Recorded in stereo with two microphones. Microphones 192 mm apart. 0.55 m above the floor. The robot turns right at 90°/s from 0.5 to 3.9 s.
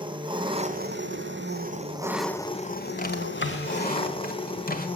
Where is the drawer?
45° left (ahead or behind), 1.5 m; by 4.9 s 50° left (ahead or behind), 1.5 m.